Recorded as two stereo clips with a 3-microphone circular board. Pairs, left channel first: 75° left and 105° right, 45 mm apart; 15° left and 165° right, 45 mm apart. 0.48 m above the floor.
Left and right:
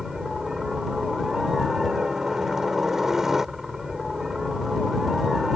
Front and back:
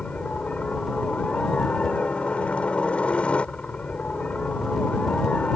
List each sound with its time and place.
0.0 s a helicopter: 30° right